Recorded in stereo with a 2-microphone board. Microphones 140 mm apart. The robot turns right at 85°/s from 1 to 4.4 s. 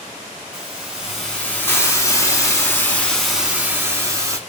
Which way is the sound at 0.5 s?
5° right (ahead or behind).